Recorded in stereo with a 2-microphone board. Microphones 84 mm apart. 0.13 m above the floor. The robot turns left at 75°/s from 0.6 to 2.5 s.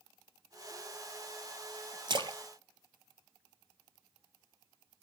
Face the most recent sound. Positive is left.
turn(degrees=-70)  # may be behind; listen again after turning